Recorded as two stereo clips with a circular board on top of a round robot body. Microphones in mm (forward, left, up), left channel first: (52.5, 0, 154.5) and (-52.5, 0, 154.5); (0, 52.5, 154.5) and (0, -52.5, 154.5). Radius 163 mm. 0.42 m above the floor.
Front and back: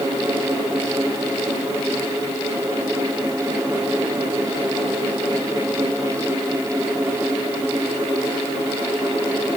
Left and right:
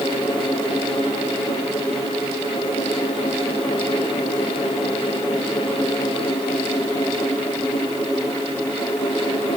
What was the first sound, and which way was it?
Only background noise.